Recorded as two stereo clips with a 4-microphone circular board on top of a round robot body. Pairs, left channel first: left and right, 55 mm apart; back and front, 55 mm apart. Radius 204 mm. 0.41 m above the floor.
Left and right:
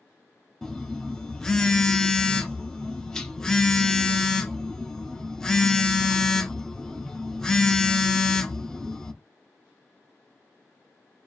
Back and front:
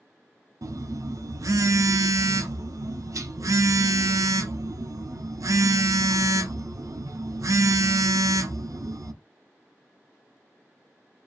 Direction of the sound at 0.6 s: 10° left.